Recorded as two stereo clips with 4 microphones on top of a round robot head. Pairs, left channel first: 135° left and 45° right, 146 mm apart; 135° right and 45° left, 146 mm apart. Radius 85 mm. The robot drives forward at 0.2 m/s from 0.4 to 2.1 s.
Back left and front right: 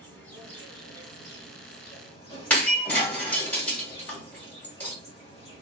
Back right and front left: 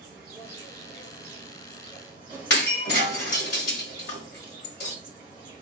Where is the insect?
65° left, 1.0 m; by 5.6 s 95° left, 0.9 m.